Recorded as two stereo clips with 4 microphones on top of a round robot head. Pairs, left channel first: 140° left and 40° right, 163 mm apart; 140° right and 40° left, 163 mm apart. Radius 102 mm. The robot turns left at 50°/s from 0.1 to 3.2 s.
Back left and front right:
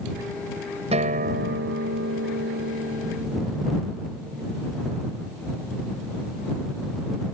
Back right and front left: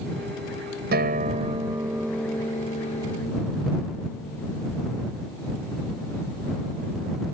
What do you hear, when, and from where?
0.9 s a guitar: 10° left; by 4.9 s 100° right